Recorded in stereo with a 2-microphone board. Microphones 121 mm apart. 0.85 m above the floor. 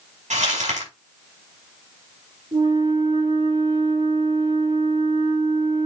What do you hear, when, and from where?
0.3 s crumpling: 80° right, 6 m
2.5 s a flute: 75° right (ahead or behind), 6 m